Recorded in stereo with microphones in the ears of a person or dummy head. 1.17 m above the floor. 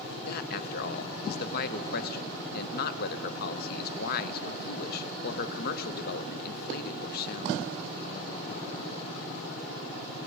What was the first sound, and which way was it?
A man speaking, 50° left (ahead or behind).